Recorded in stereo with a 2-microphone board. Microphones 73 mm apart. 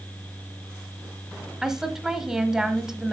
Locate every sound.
1.6 s a woman speaking: 5° right (ahead or behind), 1.2 m